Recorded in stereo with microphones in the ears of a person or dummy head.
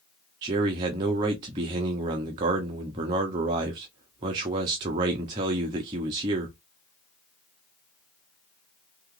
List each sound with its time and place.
0.4 s a man speaking: 20° right (ahead or behind), 0.6 m